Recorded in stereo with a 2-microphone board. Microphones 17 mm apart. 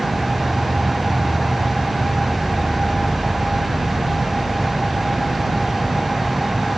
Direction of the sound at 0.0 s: 25° right (ahead or behind).